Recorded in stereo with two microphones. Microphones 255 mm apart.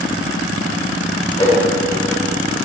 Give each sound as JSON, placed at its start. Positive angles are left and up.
{"t": 1.4, "sound": "a whoosh", "side_deg": 20, "distance_m": 1.7}